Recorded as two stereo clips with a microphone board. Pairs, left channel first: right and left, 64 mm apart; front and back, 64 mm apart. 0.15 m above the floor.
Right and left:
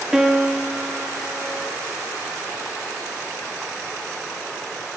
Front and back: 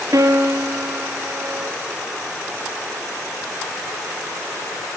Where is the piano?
170° left, 2 m.